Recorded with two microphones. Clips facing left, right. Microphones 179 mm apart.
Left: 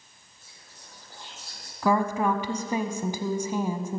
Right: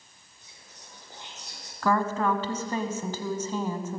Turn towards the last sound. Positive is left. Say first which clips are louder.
# left 2 dB
turn(degrees=15)  # may be behind; listen again after turning